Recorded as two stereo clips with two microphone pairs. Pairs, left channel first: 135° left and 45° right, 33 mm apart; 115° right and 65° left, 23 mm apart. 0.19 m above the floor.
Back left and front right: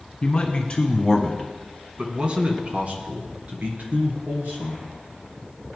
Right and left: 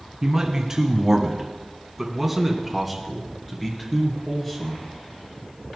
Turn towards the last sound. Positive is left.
turn(degrees=-30)